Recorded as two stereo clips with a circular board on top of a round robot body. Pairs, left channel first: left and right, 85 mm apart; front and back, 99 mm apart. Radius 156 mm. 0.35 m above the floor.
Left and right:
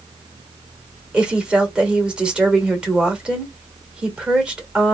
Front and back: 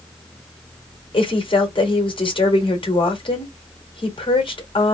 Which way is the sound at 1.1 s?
10° right.